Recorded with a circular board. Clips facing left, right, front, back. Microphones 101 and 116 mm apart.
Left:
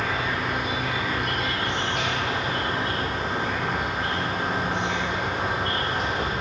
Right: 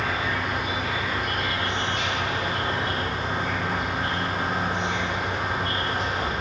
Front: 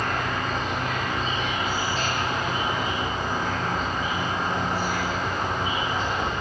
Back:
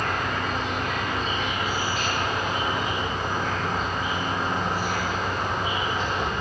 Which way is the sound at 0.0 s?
65° left.